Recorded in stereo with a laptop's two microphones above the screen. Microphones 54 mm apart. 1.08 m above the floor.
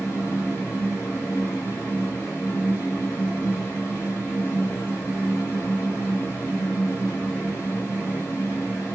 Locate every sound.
0.0 s a fan: 40° left (ahead or behind), 2.5 m